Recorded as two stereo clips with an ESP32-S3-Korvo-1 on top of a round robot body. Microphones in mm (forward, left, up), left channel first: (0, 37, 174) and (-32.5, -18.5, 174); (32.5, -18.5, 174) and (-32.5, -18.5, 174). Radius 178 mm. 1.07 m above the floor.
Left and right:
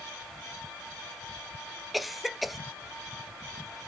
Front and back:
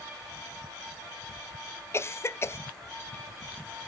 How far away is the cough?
About 0.7 m.